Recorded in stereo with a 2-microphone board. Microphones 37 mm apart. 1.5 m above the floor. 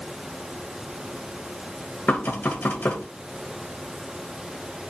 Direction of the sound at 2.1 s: 50° left (ahead or behind).